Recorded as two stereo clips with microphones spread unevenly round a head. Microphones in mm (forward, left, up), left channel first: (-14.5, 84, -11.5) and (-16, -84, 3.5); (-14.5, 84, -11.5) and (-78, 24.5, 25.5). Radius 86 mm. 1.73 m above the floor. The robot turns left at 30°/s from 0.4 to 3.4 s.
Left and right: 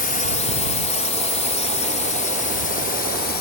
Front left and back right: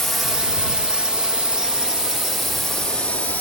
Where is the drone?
130° left; by 3.4 s 120° left.